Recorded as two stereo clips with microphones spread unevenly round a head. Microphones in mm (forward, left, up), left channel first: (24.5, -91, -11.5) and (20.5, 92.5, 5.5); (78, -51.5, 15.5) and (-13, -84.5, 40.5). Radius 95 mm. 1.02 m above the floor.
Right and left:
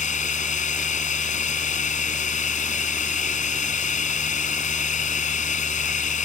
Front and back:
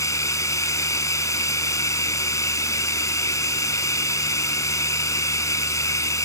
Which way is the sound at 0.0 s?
40° right.